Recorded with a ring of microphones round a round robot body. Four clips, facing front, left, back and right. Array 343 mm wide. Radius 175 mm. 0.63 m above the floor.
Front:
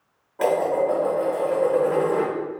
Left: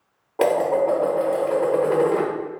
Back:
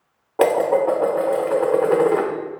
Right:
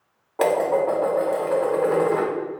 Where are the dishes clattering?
170° left, 1.0 m.